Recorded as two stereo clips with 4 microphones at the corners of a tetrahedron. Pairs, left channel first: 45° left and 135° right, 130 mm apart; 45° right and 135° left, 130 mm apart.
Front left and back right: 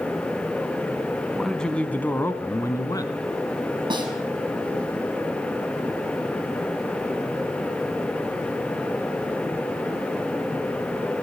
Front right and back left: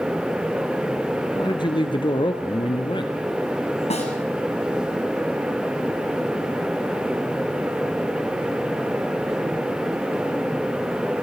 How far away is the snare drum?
About 6 m.